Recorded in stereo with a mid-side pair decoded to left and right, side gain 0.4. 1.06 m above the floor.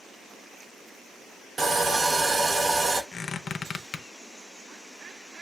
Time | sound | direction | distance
1.6 | sawing | 45° right | 0.9 m
3.1 | a squeak | 50° left | 0.5 m